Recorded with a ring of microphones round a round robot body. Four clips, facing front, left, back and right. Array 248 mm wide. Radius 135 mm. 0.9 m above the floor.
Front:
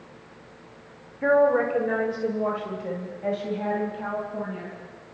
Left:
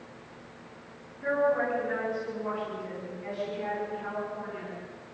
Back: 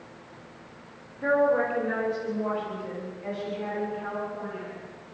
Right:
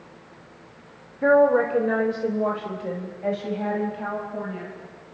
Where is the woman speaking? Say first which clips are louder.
Right 9 dB, front 3 dB; 75° right, 2.5 m; by 4.8 s 55° right, 6.5 m.